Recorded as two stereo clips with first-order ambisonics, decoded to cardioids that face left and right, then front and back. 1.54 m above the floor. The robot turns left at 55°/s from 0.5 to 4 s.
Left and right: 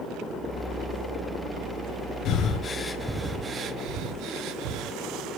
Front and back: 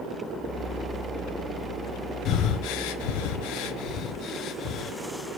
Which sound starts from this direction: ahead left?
Breathing, at 2.2 s.